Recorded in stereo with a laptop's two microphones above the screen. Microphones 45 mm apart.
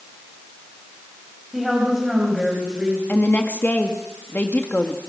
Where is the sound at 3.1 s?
40° left (ahead or behind), 1.8 m.